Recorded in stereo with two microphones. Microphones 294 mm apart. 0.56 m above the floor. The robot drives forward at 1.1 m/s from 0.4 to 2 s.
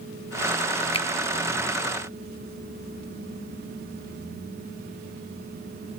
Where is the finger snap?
20° left (ahead or behind), 0.7 m.